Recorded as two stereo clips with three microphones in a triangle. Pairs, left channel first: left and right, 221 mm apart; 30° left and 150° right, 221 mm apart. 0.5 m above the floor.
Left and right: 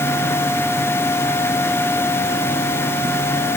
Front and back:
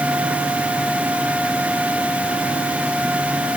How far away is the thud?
No thud in this recording.